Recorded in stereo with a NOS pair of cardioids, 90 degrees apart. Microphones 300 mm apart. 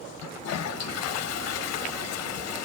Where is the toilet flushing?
60° left, 0.7 m.